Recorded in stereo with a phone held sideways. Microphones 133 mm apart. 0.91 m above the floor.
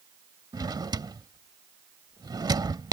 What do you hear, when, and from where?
0.5 s a drawer: 30° right (ahead or behind)